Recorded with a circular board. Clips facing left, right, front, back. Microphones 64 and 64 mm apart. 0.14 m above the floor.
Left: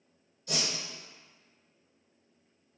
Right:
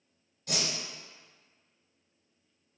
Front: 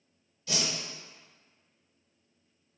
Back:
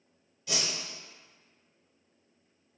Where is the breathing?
No breathing in this recording.